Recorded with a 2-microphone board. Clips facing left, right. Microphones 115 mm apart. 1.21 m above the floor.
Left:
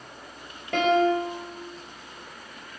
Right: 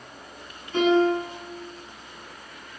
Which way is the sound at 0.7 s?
85° left.